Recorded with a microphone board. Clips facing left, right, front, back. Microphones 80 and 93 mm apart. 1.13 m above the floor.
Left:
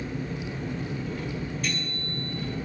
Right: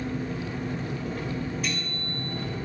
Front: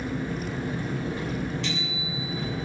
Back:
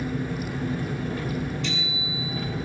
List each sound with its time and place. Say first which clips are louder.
0.0 s an engine running: right 2 dB, back 1 dB; 65° right, 3.5 m
1.6 s a bicycle bell: even, back 1 dB; 10° right, 6.5 m